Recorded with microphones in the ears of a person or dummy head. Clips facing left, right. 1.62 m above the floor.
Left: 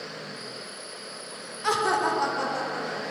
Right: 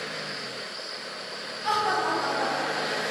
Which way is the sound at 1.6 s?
65° left (ahead or behind).